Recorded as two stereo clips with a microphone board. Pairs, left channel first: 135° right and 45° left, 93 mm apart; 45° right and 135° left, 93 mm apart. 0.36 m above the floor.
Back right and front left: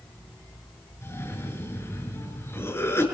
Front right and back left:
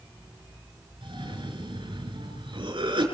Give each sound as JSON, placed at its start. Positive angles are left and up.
{"t": 1.0, "sound": "a cough", "azimuth_deg": 160, "distance_m": 5.0}